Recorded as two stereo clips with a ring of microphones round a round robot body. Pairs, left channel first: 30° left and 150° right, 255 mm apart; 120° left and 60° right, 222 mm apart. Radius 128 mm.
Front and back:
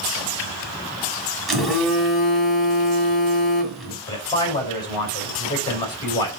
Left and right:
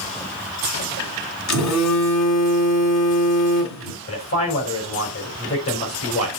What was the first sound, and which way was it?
A phone buzzing, 120° left.